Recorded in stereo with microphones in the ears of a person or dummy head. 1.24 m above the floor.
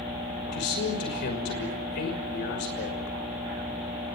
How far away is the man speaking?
About 6 m.